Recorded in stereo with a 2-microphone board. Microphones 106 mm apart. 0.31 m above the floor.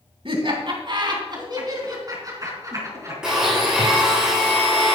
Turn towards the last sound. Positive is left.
turn(degrees=-5)  # may be behind; listen again after turning